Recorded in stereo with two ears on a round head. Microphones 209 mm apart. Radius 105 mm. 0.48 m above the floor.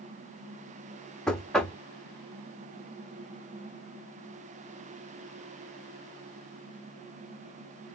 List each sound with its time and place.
1.3 s knocking: 5° left (ahead or behind), 0.7 m